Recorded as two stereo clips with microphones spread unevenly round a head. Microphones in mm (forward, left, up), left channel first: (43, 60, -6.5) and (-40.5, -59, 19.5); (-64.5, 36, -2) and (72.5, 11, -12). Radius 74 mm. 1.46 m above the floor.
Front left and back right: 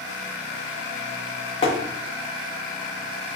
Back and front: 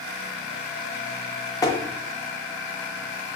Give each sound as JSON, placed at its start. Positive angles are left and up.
{"t": 1.6, "sound": "tapping", "azimuth_deg": 110, "distance_m": 0.7}